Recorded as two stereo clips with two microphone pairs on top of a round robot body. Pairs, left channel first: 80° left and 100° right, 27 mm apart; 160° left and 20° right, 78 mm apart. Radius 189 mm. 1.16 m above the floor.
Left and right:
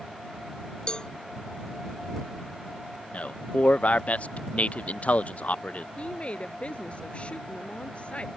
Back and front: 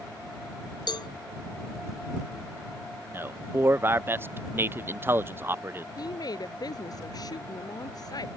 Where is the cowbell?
140° left.